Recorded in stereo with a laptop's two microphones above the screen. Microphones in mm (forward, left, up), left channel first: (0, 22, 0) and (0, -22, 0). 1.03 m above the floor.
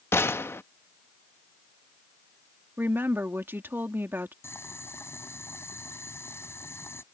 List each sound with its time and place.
0.1 s a gunshot: 70° left (ahead or behind)
2.8 s a woman speaking: 60° right (ahead or behind)
4.4 s boiling: 85° left